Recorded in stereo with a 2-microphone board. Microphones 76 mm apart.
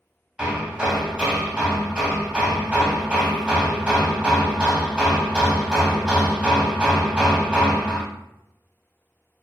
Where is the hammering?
15° right (ahead or behind), 0.6 m.